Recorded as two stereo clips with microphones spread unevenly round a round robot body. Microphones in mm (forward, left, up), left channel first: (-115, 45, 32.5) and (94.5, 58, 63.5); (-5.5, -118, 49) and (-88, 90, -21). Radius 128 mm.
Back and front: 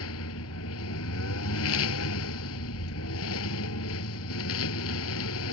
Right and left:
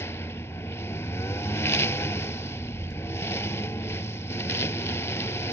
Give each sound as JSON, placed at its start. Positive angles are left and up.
{"t": 0.0, "sound": "a lawn mower", "azimuth_deg": -145}